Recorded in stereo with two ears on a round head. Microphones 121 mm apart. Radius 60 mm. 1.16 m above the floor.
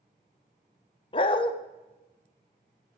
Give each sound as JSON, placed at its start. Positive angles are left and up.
{"t": 1.1, "sound": "a dog barking", "side_deg": 40, "distance_m": 0.7}